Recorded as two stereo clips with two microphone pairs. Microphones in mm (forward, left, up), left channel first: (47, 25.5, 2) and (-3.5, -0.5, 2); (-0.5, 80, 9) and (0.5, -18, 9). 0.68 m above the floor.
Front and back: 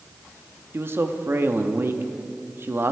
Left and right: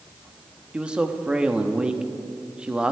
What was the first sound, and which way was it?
A man speaking, 170° right.